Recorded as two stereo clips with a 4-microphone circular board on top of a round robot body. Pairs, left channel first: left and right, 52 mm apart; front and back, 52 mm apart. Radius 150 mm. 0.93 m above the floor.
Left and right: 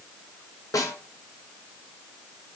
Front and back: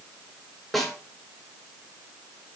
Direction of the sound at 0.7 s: 85° left.